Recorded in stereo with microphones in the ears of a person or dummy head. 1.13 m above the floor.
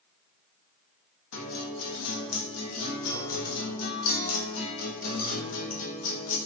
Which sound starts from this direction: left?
A guitar, at 1.3 s.